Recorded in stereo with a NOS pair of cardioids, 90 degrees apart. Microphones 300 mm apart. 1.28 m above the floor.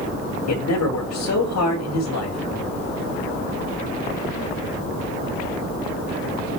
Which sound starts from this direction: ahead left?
A man speaking, at 0.5 s.